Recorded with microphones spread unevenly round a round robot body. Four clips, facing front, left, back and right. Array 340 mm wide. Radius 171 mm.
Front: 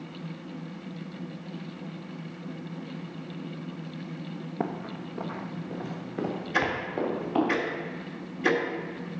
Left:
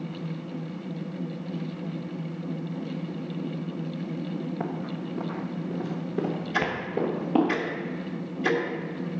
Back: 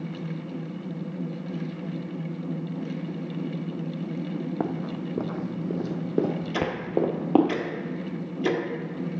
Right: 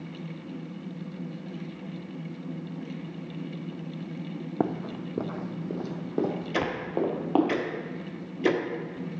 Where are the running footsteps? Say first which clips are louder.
Right 2 dB, back 4 dB; 95° right, 0.9 m; by 7.5 s 170° left, 2.5 m.